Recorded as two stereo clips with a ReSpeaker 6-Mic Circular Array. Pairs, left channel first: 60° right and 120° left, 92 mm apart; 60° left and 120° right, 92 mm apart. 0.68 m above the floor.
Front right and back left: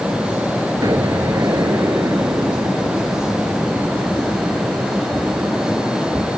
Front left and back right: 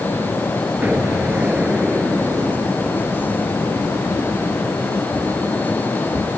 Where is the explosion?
165° left.